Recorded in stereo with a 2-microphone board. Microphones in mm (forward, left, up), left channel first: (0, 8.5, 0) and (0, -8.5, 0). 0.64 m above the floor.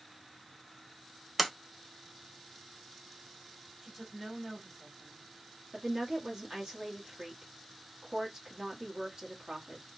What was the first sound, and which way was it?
A sliding door, 5° right (ahead or behind).